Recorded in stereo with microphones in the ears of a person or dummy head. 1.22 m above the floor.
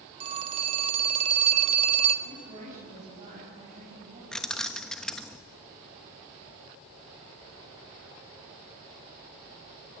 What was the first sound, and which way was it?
A phone ringing, 35° right (ahead or behind).